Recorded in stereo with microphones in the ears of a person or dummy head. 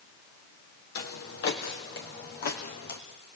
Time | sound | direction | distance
0.9 | footsteps | 60° left (ahead or behind) | 3 m